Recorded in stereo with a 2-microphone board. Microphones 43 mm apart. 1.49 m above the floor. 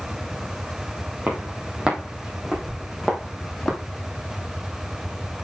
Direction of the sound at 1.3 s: 30° right (ahead or behind).